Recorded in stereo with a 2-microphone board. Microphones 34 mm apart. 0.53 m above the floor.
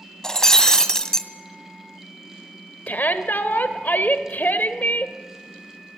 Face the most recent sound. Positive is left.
turn(degrees=60)  # may be behind; listen again after turning